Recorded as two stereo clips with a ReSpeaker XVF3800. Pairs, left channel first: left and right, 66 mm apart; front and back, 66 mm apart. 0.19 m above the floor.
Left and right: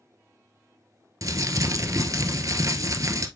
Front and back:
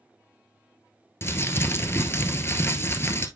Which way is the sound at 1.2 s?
55° right.